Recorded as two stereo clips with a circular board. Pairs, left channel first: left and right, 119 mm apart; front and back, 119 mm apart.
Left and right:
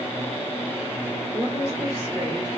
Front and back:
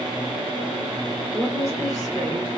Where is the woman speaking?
110° right, 2.5 m; by 2.5 s 140° right, 3 m.